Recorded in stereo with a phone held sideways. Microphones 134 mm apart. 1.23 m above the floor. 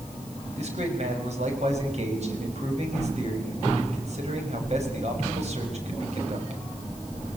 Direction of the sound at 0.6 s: 55° right (ahead or behind).